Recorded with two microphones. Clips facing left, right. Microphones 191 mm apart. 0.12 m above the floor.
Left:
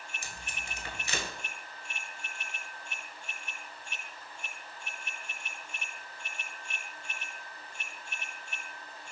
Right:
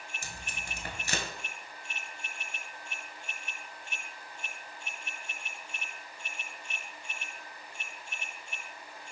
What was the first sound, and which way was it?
Tape being pulled, 45° right (ahead or behind).